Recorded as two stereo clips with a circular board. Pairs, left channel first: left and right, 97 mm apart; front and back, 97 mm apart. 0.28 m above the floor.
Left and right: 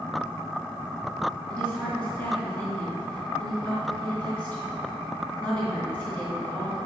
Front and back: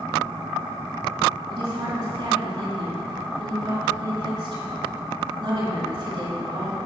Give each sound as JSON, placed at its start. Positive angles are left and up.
{"t": 1.5, "sound": "a woman speaking", "azimuth_deg": 165, "distance_m": 2.5}